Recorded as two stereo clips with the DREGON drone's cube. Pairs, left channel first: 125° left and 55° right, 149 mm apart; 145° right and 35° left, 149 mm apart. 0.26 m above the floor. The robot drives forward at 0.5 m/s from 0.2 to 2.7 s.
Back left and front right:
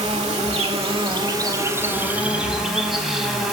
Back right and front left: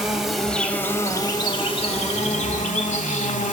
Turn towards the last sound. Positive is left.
turn(degrees=-145)